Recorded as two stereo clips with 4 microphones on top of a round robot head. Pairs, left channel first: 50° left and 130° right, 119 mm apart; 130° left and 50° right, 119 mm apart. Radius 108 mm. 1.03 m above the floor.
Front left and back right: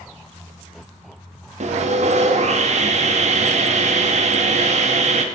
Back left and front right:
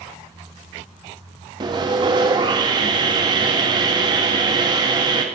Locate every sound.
1.6 s sawing: 105° right, 1.5 m